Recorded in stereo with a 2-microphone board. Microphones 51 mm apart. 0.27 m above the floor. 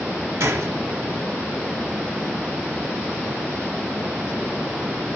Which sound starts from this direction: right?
A gunshot, at 0.4 s.